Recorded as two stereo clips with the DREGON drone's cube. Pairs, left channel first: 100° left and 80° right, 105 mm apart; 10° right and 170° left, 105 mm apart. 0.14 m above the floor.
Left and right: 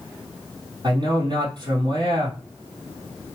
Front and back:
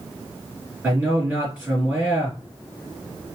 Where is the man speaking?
115° right, 3 m.